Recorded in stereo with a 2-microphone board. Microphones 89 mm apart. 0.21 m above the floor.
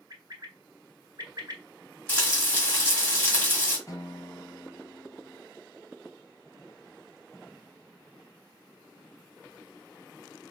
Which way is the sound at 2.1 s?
20° left (ahead or behind).